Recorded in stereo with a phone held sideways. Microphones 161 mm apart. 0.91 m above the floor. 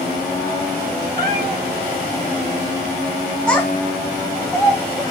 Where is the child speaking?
5° left (ahead or behind), 2.5 m.